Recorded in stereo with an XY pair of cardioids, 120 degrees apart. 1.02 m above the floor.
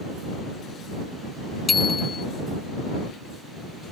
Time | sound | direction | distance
1.7 | a bicycle bell | 30° left | ?